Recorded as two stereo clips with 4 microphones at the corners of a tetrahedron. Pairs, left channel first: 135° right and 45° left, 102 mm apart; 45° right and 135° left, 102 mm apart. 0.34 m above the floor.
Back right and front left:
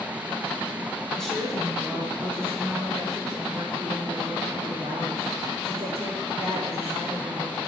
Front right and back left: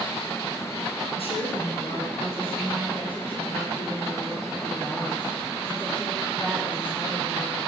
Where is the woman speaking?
55° right, 3 m; by 7.6 s 30° left, 7.5 m.